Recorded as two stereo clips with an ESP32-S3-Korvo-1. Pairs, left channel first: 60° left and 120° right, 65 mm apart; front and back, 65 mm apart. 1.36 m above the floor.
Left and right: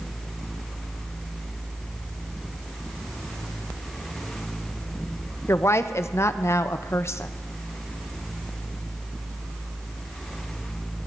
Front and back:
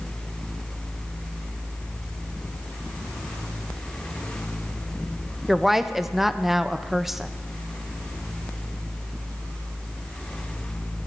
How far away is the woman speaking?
About 0.6 m.